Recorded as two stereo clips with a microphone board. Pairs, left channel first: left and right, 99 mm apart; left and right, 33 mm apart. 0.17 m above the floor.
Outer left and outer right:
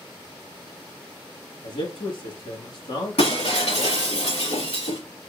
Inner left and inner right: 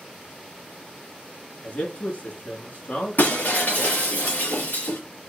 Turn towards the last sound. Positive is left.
turn(degrees=85)